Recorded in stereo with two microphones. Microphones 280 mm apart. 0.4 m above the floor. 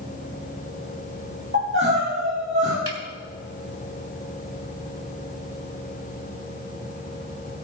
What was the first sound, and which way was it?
Crying, 40° right (ahead or behind).